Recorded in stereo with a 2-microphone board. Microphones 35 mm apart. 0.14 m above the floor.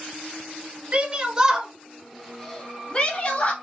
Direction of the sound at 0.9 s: 30° right (ahead or behind).